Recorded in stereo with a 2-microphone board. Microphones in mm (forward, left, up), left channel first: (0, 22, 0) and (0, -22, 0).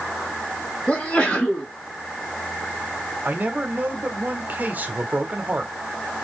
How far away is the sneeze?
About 2 m.